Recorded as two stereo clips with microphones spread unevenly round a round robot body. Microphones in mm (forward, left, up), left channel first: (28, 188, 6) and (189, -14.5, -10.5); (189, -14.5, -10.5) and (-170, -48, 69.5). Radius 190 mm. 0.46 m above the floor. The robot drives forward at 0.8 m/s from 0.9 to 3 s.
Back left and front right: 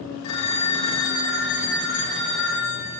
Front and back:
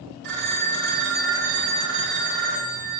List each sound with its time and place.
0.2 s a phone ringing: 120° left, 2.5 m; by 3.0 s 145° left, 3.5 m